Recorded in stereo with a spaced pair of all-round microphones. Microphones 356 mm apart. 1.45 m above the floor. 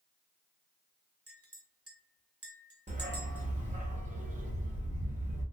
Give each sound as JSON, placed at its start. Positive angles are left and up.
{"t": 1.3, "sound": "a clink", "side_deg": -40, "distance_m": 0.7}
{"t": 2.9, "sound": "a dog barking", "side_deg": -20, "distance_m": 0.8}